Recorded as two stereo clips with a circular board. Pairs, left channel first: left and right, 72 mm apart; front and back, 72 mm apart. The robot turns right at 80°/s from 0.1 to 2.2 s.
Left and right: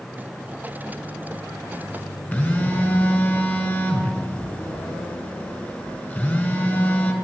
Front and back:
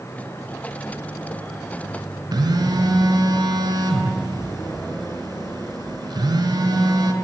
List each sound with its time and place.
2.3 s a phone buzzing: 150° left, 1.5 m